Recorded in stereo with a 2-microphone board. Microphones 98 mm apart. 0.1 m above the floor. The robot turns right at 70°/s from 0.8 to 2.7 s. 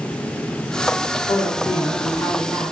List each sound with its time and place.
1.3 s a woman speaking: 80° left, 4 m; by 2.7 s straight behind, 4 m